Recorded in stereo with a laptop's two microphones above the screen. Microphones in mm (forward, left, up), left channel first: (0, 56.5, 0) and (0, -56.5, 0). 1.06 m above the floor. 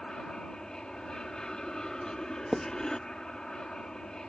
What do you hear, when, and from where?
0.0 s an aircraft: 5° left (ahead or behind)
2.5 s writing: centre (ahead or behind)